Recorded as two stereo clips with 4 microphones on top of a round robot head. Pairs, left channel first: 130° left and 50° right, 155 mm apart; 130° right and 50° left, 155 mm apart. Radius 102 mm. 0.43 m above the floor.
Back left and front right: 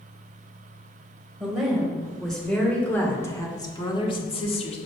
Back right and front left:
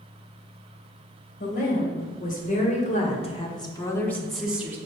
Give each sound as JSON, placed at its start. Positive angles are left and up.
{"t": 1.4, "sound": "a woman speaking", "azimuth_deg": -135, "distance_m": 3.0}